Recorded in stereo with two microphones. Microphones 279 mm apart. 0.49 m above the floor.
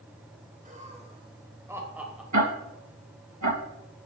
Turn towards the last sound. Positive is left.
turn(degrees=-90)